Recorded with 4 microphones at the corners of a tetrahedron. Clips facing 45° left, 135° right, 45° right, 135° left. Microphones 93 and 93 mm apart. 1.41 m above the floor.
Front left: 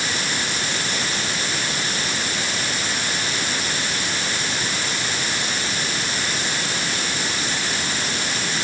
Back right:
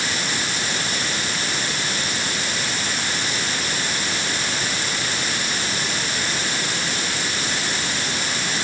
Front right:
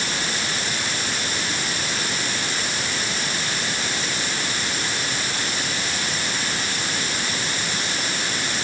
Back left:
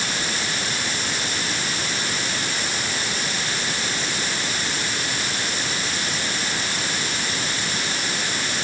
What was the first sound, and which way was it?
Only background noise.